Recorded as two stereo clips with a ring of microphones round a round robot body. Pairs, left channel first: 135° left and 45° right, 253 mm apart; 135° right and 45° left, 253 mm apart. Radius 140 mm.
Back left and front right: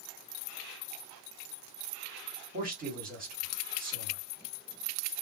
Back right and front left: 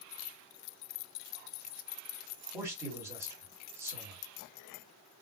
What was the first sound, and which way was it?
A man speaking, 30° right.